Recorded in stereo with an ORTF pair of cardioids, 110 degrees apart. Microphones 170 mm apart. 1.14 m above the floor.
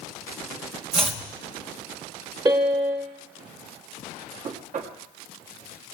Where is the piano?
25° right, 1.4 m.